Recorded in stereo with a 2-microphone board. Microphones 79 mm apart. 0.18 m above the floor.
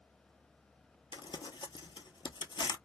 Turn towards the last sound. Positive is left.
turn(degrees=75)  # may be behind; listen again after turning